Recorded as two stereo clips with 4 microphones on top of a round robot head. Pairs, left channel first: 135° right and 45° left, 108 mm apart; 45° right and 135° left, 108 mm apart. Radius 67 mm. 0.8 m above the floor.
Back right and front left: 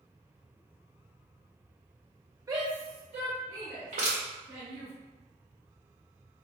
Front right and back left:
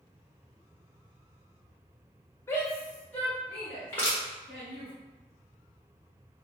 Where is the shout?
5° left, 0.6 m; by 4.9 s 35° left, 3 m.